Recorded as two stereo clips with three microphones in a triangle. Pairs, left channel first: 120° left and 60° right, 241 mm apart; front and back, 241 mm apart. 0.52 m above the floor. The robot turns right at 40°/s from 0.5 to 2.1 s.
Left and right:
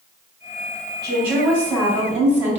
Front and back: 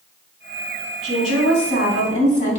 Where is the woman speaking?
15° left, 3.5 m; by 2.6 s 55° left, 3.5 m.